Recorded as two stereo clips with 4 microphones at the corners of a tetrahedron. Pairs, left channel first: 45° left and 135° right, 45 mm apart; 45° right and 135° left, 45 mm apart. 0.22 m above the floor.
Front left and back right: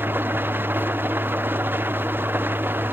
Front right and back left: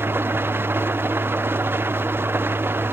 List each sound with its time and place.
0.0 s an engine running: straight behind